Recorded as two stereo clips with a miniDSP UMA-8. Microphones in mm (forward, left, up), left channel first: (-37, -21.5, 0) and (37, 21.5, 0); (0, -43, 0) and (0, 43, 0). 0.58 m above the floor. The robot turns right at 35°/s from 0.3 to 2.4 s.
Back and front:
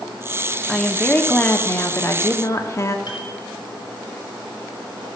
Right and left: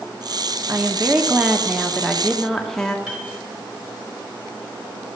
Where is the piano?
170° left, 3 m.